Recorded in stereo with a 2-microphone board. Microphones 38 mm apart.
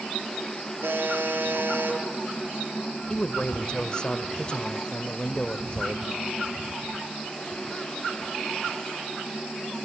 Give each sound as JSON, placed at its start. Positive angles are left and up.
{"t": 0.8, "sound": "a buzzer", "side_deg": -85, "distance_m": 6.5}
{"t": 3.1, "sound": "a man speaking", "side_deg": 25, "distance_m": 1.4}